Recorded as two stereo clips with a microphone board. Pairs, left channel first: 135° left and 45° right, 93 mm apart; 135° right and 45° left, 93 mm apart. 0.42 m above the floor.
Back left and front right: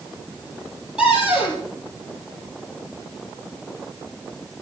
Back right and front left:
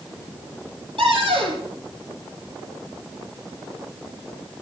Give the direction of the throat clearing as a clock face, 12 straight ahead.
No throat clearing in this recording.